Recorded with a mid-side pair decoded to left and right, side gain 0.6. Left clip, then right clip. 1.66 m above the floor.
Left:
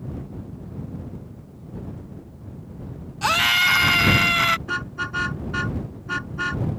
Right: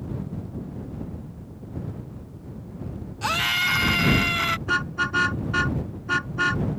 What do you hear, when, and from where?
3.2 s a scream: 30° left
4.7 s a car horn: 15° right